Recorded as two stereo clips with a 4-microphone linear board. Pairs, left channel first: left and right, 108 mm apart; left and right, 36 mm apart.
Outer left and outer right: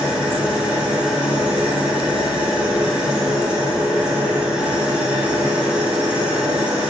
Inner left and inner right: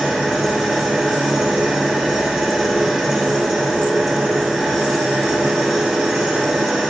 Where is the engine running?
10° right (ahead or behind), 4 m.